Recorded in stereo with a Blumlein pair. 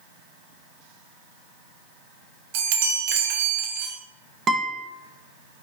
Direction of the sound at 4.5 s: 20° right.